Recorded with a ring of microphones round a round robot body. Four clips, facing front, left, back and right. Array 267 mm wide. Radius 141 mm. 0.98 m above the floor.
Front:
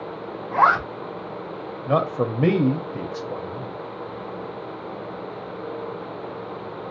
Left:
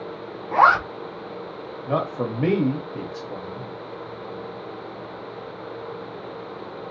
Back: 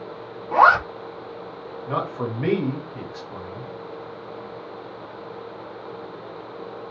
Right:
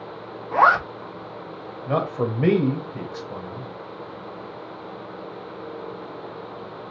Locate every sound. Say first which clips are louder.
0.5 s a zipper: left 1 dB, back 3 dB; 155° left, 2.0 m
1.9 s a man speaking: right 1 dB, front 5 dB; 5° right, 1.1 m